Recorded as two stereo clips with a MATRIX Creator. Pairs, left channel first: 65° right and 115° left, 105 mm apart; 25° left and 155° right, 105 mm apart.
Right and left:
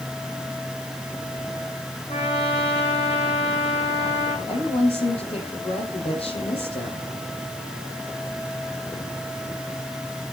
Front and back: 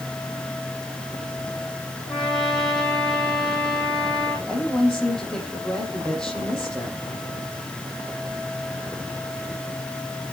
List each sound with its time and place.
2.1 s a trumpet: 60° right, 6.5 m
4.5 s a woman speaking: 60° right, 6 m